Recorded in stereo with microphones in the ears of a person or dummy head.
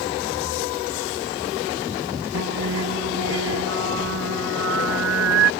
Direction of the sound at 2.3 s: 70° right (ahead or behind).